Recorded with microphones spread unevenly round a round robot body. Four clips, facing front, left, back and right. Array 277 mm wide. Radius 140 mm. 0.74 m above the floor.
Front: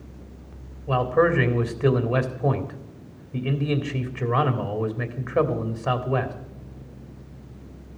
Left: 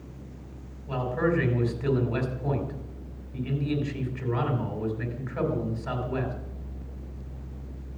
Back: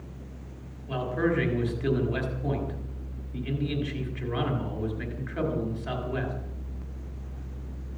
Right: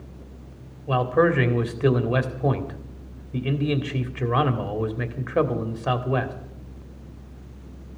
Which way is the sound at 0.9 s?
60° right.